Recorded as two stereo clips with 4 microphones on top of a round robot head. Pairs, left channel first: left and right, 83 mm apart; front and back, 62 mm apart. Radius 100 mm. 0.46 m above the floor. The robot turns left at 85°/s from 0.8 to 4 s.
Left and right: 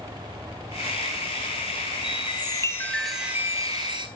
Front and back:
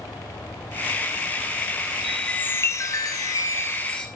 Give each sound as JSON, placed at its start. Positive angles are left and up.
{"t": 2.0, "sound": "a chime", "azimuth_deg": 90, "distance_m": 2.0}